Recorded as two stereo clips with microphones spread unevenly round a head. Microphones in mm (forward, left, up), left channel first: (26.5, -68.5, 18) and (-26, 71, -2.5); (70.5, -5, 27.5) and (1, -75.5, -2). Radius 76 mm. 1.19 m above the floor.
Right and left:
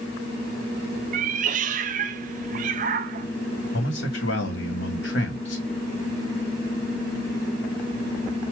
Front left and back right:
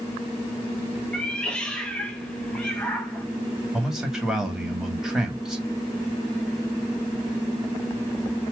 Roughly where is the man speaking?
Ahead right.